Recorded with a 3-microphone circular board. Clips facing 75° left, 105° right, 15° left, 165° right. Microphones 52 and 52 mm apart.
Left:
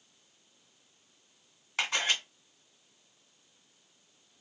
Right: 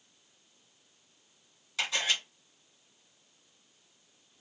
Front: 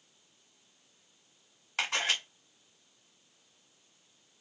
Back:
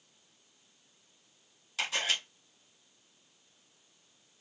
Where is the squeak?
No squeak in this recording.